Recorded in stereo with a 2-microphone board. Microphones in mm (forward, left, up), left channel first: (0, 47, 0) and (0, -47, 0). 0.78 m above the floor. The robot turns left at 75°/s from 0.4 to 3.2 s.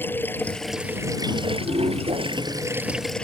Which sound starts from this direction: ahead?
Running water, at 0.0 s.